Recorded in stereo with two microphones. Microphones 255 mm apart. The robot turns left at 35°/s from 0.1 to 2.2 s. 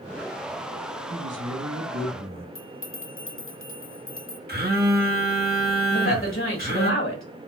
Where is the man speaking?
70° right, 2 m; by 2.5 s 110° right, 2 m.